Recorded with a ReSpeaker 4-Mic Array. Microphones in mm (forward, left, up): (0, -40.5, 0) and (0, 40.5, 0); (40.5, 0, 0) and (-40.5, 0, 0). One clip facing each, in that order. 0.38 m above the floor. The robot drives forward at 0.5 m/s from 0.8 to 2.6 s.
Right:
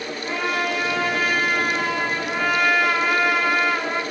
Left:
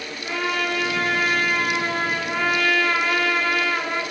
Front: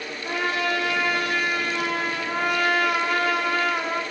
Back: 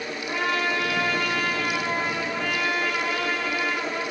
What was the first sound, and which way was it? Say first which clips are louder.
A trumpet: even, front 1 dB; 5° right.